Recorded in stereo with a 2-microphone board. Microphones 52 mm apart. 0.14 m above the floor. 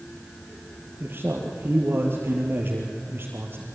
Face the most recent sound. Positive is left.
turn(degrees=-45)  # may be behind; listen again after turning